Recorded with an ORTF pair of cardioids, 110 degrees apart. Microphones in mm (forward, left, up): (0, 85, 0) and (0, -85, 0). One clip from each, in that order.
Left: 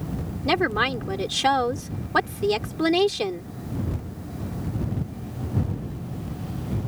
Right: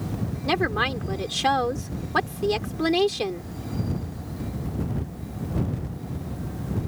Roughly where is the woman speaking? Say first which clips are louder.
Left 2 dB; ahead.